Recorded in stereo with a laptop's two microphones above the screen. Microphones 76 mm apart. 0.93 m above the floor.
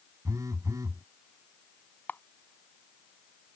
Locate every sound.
0.2 s a phone buzzing: 45° right (ahead or behind)
2.1 s a camera shutter: 20° left (ahead or behind)